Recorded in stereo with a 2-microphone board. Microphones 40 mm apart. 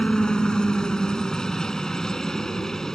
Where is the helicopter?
20° left (ahead or behind); by 3.0 s 10° left (ahead or behind).